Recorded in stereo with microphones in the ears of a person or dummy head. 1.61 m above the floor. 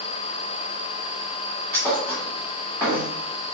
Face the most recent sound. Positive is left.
turn(degrees=10)  # may be behind; listen again after turning